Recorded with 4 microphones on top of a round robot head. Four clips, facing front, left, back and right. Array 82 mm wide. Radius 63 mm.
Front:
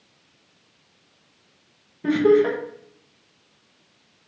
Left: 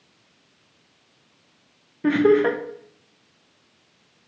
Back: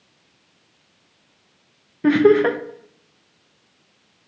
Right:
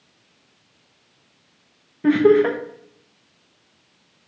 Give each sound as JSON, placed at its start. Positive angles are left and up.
{"t": 2.0, "sound": "laughter", "azimuth_deg": 175, "distance_m": 0.5}